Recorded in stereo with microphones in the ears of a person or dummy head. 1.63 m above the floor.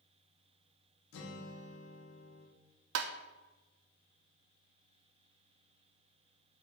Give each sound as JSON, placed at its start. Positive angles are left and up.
{"t": 1.1, "sound": "a guitar", "side_deg": 75, "distance_m": 1.4}
{"t": 3.0, "sound": "tapping", "side_deg": -75, "distance_m": 0.6}